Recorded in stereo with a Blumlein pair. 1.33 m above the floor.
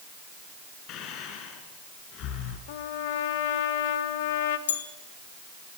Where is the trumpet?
55° left, 1.8 m.